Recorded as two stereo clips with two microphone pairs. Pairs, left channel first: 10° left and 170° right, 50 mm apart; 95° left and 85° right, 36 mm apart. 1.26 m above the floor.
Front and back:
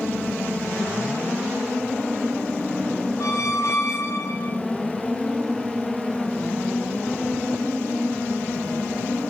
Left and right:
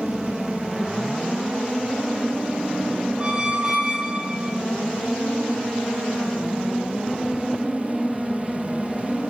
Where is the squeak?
10° right, 0.5 m.